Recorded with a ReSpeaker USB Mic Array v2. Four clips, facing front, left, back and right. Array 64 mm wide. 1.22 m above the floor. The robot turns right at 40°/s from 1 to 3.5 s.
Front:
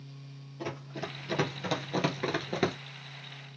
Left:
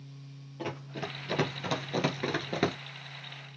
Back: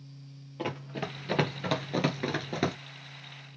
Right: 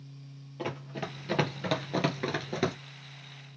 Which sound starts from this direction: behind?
Running footsteps, at 0.6 s.